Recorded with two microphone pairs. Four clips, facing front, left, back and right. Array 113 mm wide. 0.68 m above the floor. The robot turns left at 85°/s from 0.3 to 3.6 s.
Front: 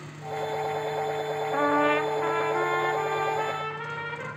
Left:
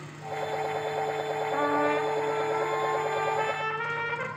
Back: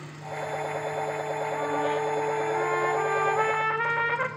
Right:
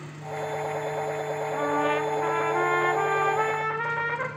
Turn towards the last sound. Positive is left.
turn(degrees=-155)